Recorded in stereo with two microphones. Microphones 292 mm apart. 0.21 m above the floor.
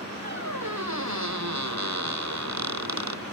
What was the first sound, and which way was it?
A squeak, 65° right (ahead or behind).